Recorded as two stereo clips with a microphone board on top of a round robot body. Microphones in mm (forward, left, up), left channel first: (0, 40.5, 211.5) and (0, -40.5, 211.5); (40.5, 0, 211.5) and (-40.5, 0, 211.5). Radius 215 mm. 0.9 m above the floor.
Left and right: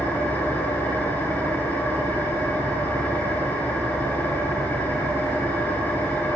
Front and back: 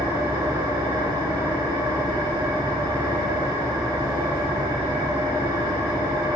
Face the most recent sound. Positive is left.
turn(degrees=155)